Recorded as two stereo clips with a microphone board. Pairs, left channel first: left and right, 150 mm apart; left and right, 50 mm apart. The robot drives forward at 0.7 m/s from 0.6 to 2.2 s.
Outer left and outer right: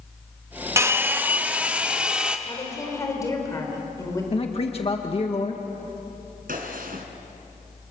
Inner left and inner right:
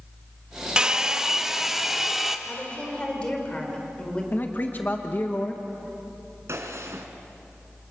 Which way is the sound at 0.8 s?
20° right (ahead or behind).